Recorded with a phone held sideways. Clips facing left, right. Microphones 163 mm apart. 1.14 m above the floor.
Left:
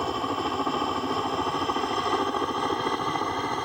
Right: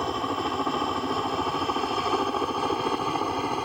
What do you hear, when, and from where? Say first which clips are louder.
0.0 s a helicopter: even; centre (ahead or behind); by 3.6 s 10° right (ahead or behind)